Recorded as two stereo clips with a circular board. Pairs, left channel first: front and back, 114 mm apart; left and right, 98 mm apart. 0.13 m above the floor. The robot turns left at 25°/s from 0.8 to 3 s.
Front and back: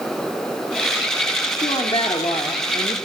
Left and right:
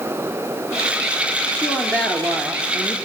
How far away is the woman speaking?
About 2.5 m.